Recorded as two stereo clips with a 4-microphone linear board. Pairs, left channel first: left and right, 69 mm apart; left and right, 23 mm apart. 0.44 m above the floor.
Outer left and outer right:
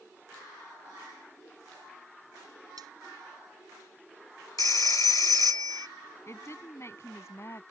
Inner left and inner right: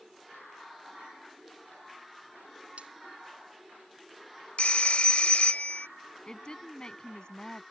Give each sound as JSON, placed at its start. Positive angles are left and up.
{"t": 2.8, "sound": "cutlery clinking", "side_deg": -80}
{"t": 4.6, "sound": "a phone ringing", "side_deg": 65}
{"t": 6.3, "sound": "a woman speaking", "side_deg": 45}